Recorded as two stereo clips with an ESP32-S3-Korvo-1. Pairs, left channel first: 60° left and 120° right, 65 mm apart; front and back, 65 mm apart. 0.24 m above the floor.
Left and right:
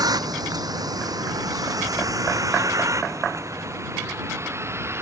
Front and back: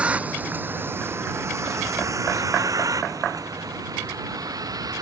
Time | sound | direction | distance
0.0 | a vehicle | 110° right | ?